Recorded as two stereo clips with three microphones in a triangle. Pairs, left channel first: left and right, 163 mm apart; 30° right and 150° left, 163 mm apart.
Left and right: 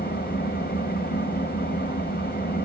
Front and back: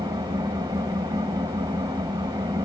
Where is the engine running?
85° left, 4 m.